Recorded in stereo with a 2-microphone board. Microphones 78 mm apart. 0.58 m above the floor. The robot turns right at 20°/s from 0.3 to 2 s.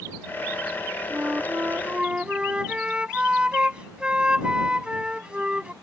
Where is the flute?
30° right (ahead or behind); by 5.7 s 15° right (ahead or behind).